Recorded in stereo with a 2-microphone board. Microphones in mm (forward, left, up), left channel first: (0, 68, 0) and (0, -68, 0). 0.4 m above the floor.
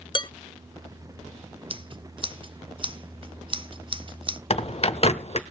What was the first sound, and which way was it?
Dishes clattering, 40° left (ahead or behind).